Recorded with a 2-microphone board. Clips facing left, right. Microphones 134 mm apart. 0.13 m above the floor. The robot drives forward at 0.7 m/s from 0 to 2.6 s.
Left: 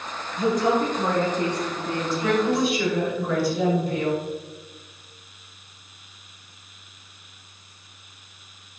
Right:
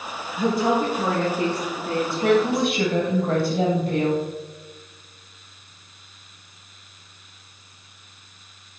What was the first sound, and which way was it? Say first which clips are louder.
A woman speaking: even; 5° right (ahead or behind).